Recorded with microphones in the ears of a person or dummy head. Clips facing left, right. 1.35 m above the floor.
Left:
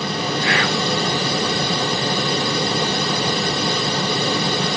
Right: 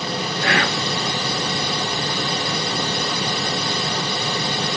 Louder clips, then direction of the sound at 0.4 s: Right 1 dB; 40° right (ahead or behind).